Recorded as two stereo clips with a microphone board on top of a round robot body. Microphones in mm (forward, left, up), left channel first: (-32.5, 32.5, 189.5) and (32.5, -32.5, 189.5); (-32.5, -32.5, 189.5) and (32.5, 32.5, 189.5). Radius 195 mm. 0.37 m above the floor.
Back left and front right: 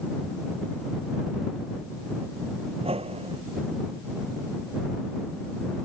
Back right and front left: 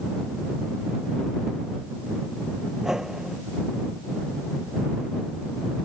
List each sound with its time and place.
2.8 s a whoosh: 40° right